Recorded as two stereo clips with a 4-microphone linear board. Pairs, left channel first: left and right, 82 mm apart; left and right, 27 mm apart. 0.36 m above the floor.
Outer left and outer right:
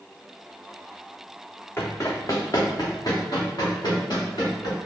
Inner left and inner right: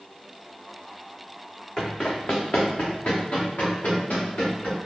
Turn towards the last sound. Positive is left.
turn(degrees=60)  # may be behind; listen again after turning